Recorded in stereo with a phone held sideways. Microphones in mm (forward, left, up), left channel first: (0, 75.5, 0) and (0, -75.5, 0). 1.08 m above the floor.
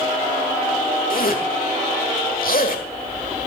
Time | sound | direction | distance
1.1 | a zipper | 70° left (ahead or behind) | 1.6 m